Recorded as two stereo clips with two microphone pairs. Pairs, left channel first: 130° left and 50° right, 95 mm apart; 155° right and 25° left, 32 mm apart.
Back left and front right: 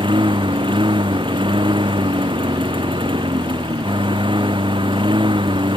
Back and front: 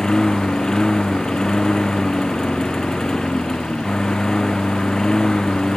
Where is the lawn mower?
85° right.